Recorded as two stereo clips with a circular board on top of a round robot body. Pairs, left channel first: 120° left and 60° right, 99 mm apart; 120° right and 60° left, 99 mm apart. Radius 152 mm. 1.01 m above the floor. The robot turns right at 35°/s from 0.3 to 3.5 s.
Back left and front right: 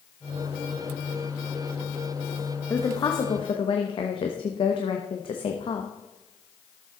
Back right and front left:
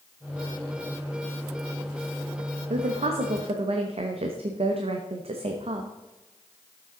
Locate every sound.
2.7 s a woman speaking: 55° left, 1.0 m; by 5.9 s 85° left, 1.0 m